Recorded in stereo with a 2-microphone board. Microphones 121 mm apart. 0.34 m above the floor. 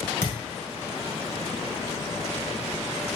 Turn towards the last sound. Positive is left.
turn(degrees=25)  # may be behind; listen again after turning